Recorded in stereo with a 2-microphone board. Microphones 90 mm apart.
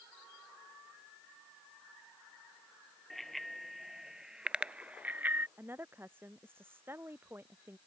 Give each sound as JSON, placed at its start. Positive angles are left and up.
{"t": 3.1, "sound": "a bicycle bell", "side_deg": 0}
{"t": 5.6, "sound": "a woman speaking", "side_deg": -25}